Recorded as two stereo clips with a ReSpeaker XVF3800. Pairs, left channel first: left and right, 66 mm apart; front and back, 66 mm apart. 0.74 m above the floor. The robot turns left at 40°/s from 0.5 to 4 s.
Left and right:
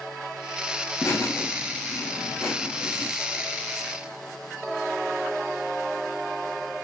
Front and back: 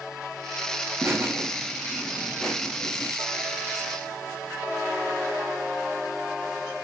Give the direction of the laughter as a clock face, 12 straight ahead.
8 o'clock.